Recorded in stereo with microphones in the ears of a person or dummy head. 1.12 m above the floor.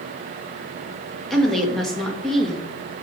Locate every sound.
1.3 s a woman speaking: centre (ahead or behind), 1.8 m